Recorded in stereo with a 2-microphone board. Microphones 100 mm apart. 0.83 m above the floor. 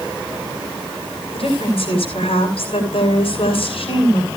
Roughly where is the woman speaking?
Left.